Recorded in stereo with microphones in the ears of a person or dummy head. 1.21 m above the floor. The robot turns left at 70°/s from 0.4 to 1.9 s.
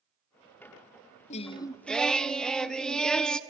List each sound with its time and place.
1.3 s singing: 45° left, 0.5 m; by 3.4 s straight ahead, 0.5 m